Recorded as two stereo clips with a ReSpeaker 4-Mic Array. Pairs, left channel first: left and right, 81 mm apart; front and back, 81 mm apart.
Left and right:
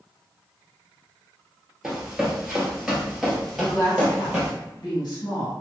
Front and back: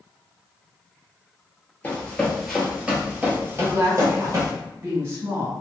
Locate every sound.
1.8 s running footsteps: 20° right, 1.2 m; by 4.5 s 170° right, 1.7 m
3.6 s a woman speaking: 120° left, 1.4 m